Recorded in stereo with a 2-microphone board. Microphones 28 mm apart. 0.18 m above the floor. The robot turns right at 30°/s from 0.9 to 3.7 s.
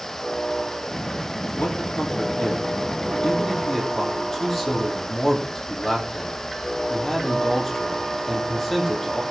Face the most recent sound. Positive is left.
turn(degrees=170)